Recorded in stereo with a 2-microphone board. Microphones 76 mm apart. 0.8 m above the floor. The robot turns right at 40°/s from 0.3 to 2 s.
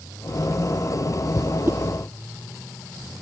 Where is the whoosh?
35° right (ahead or behind); by 1.8 s 30° right (ahead or behind).